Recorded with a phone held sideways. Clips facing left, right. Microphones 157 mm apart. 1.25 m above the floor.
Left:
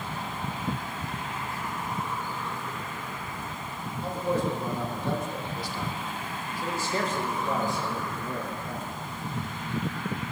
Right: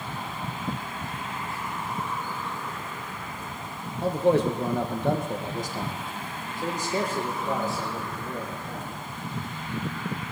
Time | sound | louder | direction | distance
4.0 | a man speaking | right 7 dB | 75° right (ahead or behind) | 1.6 m